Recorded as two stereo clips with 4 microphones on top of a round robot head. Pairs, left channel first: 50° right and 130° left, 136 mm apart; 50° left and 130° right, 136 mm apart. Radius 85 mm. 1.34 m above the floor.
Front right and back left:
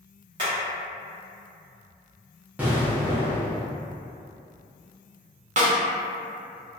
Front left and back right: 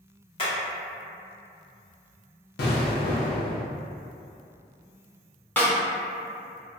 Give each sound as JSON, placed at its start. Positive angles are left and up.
{"t": 0.4, "sound": "hammering", "azimuth_deg": 85, "distance_m": 1.0}
{"t": 2.6, "sound": "an explosion", "azimuth_deg": 50, "distance_m": 0.5}
{"t": 5.6, "sound": "a snare drum", "azimuth_deg": 125, "distance_m": 0.7}